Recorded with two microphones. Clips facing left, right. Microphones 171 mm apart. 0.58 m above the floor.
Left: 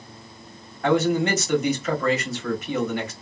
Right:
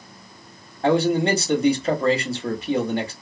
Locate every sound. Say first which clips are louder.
0.8 s a man speaking: right 2 dB; 30° right (ahead or behind), 1.0 m